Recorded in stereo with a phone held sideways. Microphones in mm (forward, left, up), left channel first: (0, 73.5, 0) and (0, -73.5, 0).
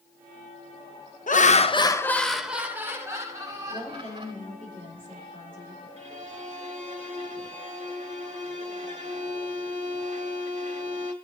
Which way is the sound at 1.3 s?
60° left (ahead or behind).